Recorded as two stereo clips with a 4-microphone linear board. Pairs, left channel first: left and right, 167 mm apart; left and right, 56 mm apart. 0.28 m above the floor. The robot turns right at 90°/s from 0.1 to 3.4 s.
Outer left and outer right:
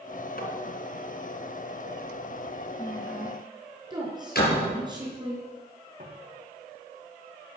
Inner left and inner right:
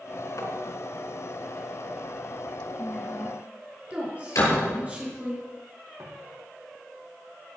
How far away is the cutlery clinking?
I don't hear cutlery clinking.